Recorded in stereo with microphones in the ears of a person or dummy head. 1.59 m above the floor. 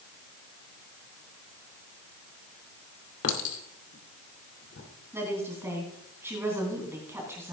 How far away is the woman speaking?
About 3 m.